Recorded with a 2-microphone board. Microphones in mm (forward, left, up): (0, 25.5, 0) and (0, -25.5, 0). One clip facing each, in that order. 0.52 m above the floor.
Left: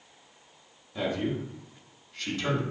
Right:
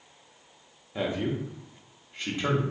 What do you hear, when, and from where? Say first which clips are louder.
0.9 s a man speaking: even; 20° right (ahead or behind), 0.9 m